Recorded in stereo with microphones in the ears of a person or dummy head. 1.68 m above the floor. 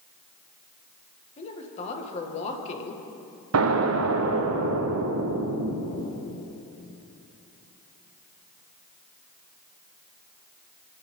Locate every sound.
1.4 s a woman speaking: 35° left (ahead or behind), 1.8 m
3.5 s an explosion: 75° right (ahead or behind), 1.0 m